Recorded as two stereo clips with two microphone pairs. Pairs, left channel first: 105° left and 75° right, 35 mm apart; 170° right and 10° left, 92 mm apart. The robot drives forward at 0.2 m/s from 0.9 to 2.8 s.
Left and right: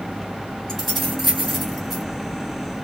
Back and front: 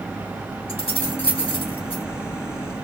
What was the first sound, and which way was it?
Keys jangling, 165° right.